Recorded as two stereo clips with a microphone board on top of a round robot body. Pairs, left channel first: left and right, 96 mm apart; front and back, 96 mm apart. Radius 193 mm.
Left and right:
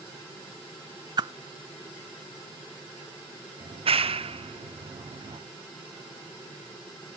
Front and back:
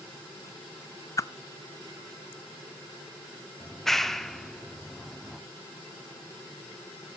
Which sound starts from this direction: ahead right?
A whoosh, at 1.2 s.